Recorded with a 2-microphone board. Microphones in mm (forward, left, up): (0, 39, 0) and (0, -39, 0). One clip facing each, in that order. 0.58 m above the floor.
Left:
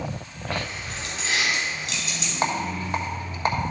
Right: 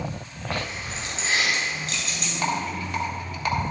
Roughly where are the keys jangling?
Centre.